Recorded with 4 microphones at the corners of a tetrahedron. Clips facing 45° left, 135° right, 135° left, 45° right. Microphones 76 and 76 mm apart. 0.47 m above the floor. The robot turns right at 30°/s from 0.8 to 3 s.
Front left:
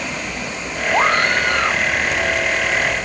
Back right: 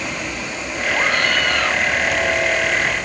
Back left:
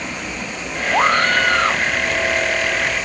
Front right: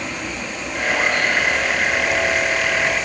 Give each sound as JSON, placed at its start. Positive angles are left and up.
{"t": 0.9, "sound": "a scream", "azimuth_deg": 95}